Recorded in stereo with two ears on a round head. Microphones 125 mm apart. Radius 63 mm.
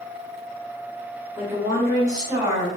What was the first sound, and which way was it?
A woman speaking, 10° right (ahead or behind).